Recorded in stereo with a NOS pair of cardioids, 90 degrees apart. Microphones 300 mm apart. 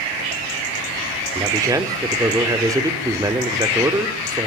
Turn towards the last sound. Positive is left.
turn(degrees=-10)